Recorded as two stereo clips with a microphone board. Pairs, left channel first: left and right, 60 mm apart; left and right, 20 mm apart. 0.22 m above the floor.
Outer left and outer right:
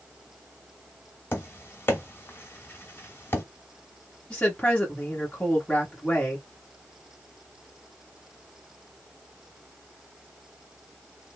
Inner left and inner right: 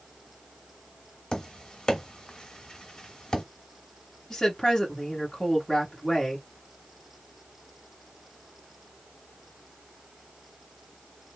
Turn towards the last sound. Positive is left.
turn(degrees=15)  # may be behind; listen again after turning